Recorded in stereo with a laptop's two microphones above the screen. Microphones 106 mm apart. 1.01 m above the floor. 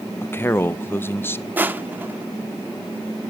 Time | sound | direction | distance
0.2 | a man speaking | 20° left (ahead or behind) | 0.5 m
1.6 | crushing | 15° right (ahead or behind) | 0.6 m